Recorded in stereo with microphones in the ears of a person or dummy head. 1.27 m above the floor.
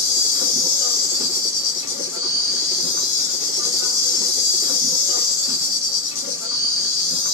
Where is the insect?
65° left (ahead or behind), 1.0 m.